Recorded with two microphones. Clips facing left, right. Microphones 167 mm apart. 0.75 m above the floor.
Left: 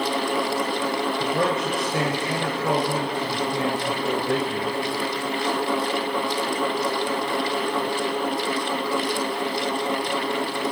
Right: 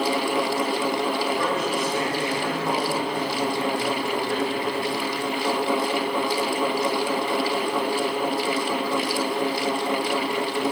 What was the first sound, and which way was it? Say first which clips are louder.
A man speaking: left 1 dB; 80° left.